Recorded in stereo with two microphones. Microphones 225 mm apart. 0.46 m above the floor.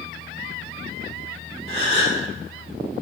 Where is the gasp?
40° left (ahead or behind), 1.6 m.